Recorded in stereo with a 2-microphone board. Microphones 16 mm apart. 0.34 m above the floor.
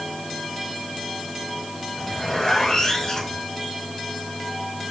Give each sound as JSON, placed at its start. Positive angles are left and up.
{"t": 1.9, "sound": "a zipper", "side_deg": 55, "distance_m": 7.0}